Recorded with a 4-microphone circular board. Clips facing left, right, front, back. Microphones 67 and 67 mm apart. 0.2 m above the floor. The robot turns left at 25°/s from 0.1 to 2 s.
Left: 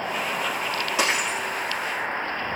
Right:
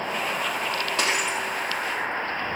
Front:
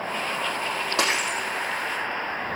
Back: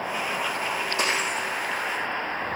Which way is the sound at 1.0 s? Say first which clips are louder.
Left 2 dB, front 2 dB; 10° left.